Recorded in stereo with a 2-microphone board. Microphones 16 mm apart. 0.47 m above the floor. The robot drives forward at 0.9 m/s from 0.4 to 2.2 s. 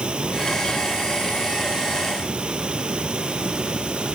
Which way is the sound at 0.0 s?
85° right.